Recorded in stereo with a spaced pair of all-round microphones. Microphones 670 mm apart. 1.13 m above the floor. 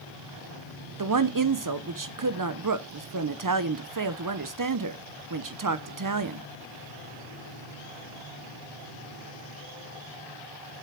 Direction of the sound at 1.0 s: 30° right (ahead or behind).